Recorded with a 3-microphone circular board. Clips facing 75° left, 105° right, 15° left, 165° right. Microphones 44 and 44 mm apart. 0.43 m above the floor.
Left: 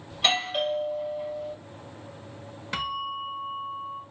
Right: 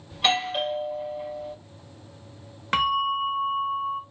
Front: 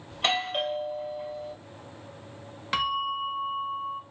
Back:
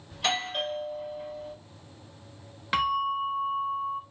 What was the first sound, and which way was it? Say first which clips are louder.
A doorbell: right 2 dB, front 2 dB; 30° right.